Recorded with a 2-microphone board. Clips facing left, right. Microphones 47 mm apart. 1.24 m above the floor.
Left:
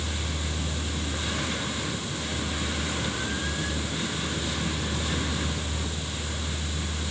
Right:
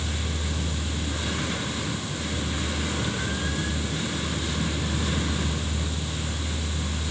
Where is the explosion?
No explosion in this recording.